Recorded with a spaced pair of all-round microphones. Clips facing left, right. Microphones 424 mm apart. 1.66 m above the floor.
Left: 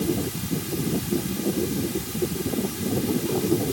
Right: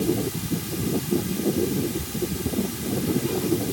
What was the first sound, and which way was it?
Only background noise.